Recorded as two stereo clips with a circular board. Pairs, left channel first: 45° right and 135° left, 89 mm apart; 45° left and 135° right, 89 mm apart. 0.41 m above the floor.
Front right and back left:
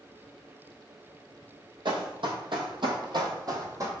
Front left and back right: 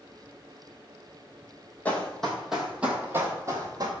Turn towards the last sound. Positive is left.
turn(degrees=-175)